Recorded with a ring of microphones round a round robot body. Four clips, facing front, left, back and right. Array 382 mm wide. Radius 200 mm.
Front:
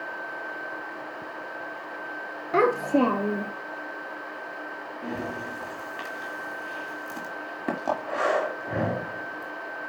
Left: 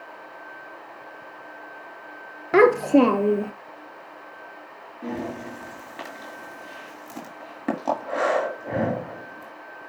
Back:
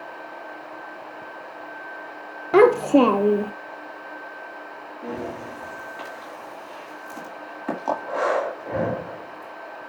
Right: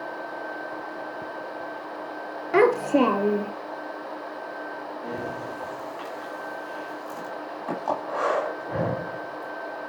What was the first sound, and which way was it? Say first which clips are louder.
A child speaking: left 3 dB, back 7 dB; 145° left.